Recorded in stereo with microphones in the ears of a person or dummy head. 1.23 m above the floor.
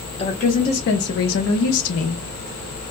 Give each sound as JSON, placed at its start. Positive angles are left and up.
{"t": 0.2, "sound": "a woman speaking", "side_deg": 35, "distance_m": 0.9}